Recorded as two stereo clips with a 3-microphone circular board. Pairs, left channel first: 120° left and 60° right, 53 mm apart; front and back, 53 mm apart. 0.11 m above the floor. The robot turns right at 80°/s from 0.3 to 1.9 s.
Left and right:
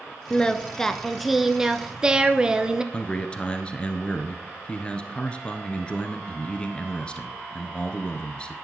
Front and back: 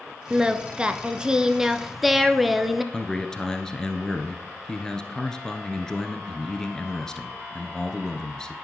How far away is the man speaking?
About 1.4 m.